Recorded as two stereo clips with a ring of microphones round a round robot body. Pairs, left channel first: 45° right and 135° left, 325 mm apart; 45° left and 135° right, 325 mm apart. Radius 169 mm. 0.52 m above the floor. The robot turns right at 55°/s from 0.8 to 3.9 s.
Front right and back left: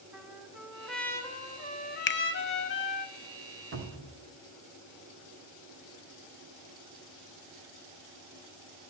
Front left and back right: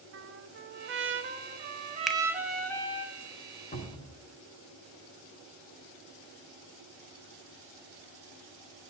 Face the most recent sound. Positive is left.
turn(degrees=115)